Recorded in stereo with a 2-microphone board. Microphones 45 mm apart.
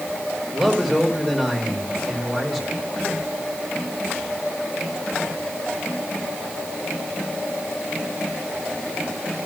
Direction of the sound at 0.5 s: 10° right (ahead or behind).